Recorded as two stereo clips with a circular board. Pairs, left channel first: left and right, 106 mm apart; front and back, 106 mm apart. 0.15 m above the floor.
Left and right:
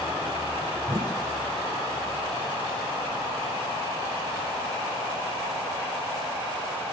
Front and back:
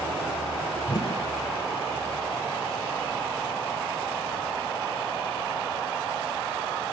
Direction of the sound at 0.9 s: 45° right.